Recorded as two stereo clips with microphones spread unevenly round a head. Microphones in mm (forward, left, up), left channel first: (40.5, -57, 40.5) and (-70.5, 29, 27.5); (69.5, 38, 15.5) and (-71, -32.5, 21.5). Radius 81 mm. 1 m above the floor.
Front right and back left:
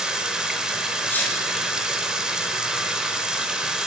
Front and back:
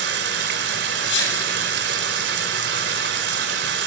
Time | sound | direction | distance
0.0 | running water | 130° right | 2.5 m
1.1 | a sneeze | 40° left | 7.5 m